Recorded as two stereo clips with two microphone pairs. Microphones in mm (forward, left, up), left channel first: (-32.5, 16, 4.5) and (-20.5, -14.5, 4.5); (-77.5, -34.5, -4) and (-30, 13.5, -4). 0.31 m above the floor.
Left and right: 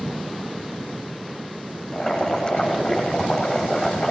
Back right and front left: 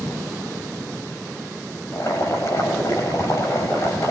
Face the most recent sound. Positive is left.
turn(degrees=-175)